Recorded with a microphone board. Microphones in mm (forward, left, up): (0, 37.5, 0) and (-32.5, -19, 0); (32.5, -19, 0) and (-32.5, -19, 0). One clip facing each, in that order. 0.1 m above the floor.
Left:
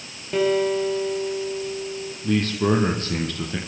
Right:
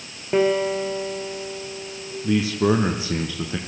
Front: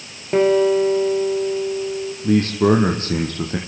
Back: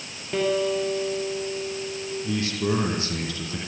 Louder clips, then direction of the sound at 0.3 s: Right 1 dB, front 9 dB; 55° right.